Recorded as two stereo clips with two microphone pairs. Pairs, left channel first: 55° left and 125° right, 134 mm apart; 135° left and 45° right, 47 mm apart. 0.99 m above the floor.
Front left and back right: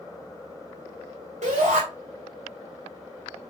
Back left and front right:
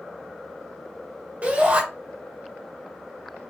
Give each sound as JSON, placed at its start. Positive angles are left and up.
{"t": 1.4, "sound": "a shout", "azimuth_deg": -95, "distance_m": 1.6}